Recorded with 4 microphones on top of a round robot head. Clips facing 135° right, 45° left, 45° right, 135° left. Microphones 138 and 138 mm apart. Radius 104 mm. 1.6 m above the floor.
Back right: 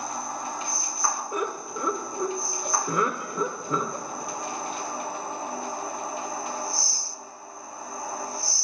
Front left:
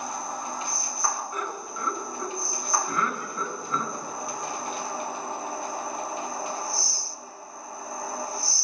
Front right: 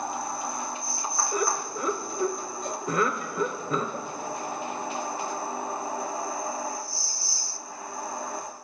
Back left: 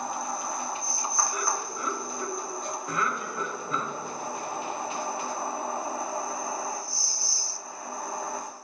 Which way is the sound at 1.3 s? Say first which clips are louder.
Back right 4 dB, front right 4 dB; 100° right.